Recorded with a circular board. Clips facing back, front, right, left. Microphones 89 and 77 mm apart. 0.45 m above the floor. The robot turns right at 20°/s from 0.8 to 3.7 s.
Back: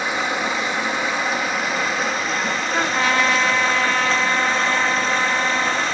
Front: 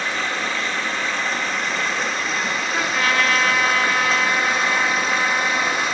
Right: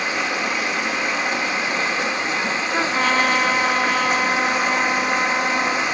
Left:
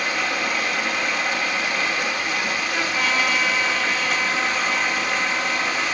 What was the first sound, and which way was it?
Running water, 120° right.